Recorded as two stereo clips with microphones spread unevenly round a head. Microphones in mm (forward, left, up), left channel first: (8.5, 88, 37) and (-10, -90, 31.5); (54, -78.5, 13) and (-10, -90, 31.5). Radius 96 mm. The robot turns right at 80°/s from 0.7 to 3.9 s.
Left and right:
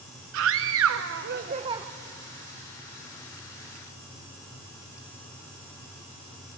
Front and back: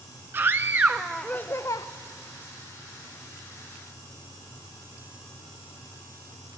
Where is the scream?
110° right, 0.6 m; by 1.9 s 20° right, 0.6 m.